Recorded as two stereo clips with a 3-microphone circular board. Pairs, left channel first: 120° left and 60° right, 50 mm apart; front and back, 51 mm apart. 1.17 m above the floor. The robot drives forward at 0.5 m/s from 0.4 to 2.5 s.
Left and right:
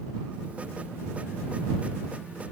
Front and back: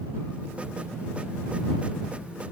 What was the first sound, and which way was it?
Only background noise.